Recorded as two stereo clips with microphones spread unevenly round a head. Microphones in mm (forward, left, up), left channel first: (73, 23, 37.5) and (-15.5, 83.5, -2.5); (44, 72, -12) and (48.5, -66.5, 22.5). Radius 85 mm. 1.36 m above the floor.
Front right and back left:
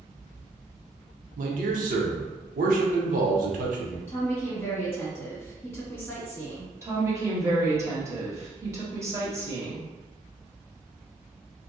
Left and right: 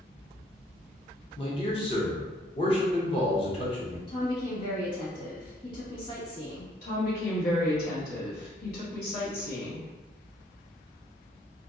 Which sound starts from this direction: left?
A woman speaking, at 6.8 s.